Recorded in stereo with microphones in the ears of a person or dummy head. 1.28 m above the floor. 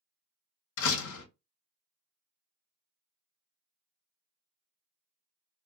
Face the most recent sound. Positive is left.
turn(degrees=75)  # may be behind; listen again after turning